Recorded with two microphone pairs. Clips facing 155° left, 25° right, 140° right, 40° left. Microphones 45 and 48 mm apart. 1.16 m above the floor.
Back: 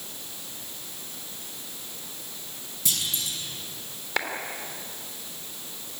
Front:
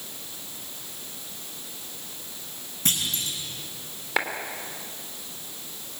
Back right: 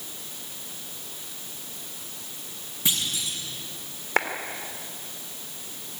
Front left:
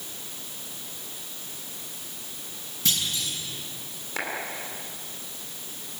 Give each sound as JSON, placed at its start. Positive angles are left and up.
{"t": 2.9, "sound": "a clunk", "azimuth_deg": -70, "distance_m": 6.5}
{"t": 4.2, "sound": "a clap", "azimuth_deg": -105, "distance_m": 3.0}